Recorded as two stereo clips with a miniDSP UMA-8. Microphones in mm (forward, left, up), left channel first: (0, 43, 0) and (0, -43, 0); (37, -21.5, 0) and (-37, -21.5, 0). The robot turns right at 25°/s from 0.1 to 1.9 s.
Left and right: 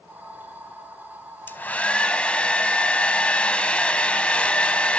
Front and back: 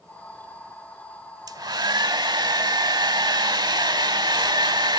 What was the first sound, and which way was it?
A hair dryer, 155° left.